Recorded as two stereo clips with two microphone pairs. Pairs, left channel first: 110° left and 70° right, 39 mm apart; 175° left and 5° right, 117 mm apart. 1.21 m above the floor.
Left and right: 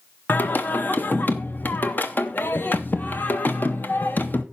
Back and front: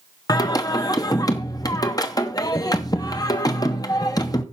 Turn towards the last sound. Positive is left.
turn(degrees=125)